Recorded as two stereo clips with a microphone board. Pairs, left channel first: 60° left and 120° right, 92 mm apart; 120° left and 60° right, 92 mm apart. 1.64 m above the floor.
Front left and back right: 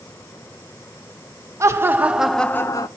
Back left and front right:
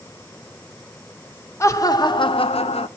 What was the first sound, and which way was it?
Laughter, straight behind.